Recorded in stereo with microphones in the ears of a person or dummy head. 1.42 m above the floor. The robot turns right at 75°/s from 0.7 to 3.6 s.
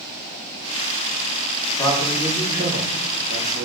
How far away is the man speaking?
About 3 m.